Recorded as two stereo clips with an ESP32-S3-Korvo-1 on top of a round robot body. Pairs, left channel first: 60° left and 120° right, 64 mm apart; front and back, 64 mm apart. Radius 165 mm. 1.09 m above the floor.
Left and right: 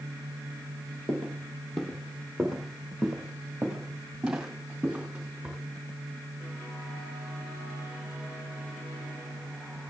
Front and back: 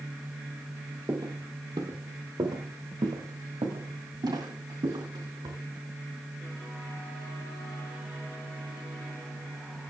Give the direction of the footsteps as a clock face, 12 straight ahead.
7 o'clock.